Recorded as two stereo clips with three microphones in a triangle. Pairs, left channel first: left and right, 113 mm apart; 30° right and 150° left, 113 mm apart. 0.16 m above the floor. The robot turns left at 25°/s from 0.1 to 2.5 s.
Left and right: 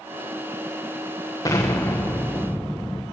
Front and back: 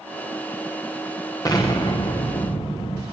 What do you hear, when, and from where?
1.4 s an explosion: 30° left, 3 m; by 3.0 s 5° left, 3 m